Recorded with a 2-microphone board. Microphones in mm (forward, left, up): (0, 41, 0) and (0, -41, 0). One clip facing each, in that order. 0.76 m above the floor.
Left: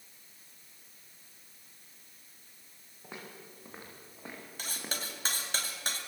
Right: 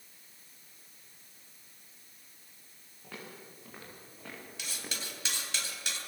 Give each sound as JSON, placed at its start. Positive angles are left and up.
{"t": 3.0, "sound": "footsteps", "side_deg": 20, "distance_m": 8.0}
{"t": 4.6, "sound": "cutlery clinking", "side_deg": 35, "distance_m": 2.5}